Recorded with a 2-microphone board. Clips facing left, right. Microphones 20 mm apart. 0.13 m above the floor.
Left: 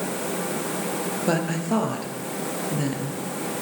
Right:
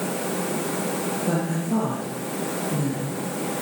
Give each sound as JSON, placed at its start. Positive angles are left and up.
{"t": 1.3, "sound": "a woman speaking", "side_deg": 50, "distance_m": 2.5}